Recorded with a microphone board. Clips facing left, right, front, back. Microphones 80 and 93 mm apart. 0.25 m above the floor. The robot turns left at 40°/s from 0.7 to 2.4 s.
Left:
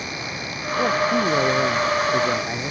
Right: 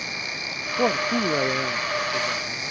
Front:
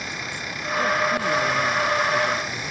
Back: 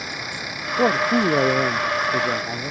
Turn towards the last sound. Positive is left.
turn(degrees=135)